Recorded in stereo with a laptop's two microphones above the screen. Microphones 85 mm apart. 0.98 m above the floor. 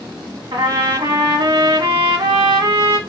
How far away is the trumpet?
About 1.6 m.